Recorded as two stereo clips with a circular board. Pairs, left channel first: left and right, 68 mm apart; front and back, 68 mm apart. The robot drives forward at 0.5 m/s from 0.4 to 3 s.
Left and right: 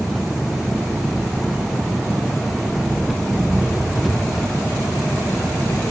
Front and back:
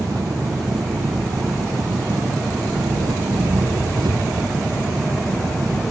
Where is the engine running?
175° right.